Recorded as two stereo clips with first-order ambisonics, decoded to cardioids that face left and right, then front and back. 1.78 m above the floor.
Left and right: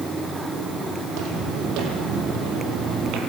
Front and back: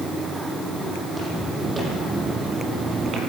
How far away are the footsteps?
About 4.5 m.